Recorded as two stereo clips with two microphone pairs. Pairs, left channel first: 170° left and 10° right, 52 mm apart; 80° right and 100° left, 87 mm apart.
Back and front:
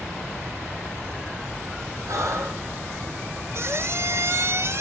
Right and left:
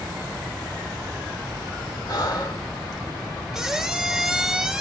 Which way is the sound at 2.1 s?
35° right.